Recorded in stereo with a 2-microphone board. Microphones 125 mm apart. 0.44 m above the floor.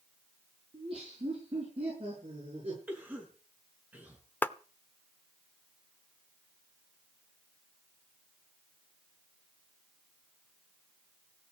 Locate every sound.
0.7 s laughter: 45° right (ahead or behind), 7.5 m; by 2.8 s 50° right (ahead or behind), 8.5 m
2.9 s a cough: 15° right (ahead or behind), 6 m
4.4 s a clap: 15° left (ahead or behind), 0.7 m